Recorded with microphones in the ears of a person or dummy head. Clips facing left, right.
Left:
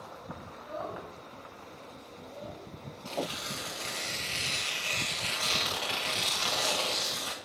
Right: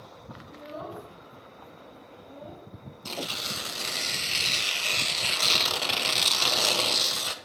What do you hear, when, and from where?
0.5 s a child speaking: 25° right (ahead or behind), 3.5 m; by 2.6 s 5° left (ahead or behind), 5 m
3.0 s tearing paper: 60° right (ahead or behind), 1.0 m